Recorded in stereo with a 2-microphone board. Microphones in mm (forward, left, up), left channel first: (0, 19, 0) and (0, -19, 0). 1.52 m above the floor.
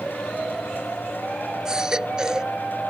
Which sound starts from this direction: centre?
A baby crying, at 1.6 s.